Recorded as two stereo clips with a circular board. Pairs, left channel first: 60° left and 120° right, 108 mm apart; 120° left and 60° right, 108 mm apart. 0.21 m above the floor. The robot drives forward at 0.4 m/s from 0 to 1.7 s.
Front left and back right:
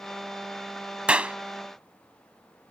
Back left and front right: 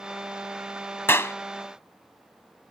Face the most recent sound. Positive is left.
turn(degrees=170)